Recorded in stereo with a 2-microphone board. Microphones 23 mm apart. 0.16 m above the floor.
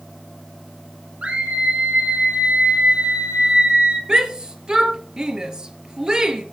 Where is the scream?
70° right (ahead or behind), 4 m; by 4.0 s 80° right, 5.5 m.